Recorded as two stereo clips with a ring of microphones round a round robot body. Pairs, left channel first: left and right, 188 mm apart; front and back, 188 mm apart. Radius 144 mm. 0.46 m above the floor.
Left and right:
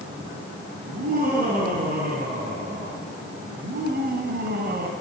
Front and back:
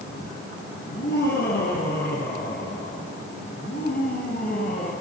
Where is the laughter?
50° right, 5 m; by 4.9 s 60° right, 3 m.